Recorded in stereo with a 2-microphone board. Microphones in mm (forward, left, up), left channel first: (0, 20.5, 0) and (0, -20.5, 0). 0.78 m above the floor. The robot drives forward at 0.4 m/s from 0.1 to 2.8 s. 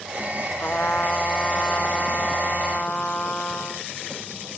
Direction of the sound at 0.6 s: 45° left (ahead or behind).